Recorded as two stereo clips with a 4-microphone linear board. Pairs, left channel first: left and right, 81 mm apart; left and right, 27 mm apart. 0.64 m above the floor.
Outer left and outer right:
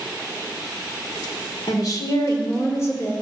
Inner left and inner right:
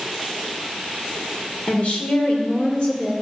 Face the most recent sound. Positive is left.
turn(degrees=30)  # may be behind; listen again after turning